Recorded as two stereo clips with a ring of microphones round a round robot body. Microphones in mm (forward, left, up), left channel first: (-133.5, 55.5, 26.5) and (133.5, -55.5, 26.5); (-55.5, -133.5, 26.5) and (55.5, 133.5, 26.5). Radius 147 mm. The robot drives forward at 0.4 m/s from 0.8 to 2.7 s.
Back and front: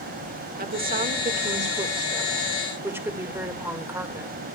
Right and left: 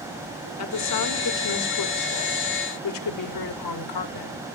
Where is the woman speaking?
80° right, 2.0 m; by 4.5 s 105° right, 2 m.